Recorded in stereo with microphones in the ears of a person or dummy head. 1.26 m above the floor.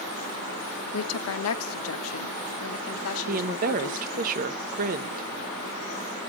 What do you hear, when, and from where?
0.9 s a woman speaking: 80° left, 1.1 m
3.3 s a woman speaking: 45° right (ahead or behind), 1.1 m